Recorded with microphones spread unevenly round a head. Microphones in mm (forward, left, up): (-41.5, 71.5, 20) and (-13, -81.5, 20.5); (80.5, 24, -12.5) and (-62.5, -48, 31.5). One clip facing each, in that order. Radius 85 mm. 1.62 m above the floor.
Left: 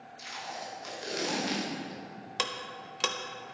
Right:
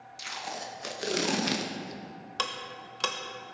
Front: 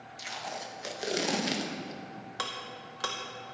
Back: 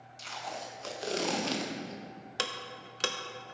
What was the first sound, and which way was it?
Tape being pulled, 60° right.